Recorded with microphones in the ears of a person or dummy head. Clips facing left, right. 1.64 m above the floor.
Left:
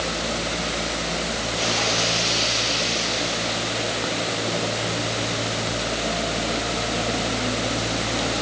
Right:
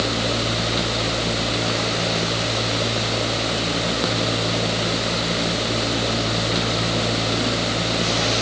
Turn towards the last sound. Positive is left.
No sound to turn to.